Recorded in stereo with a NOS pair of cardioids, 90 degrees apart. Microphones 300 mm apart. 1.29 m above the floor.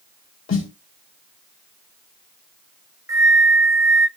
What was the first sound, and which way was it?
A snare drum, 45° left.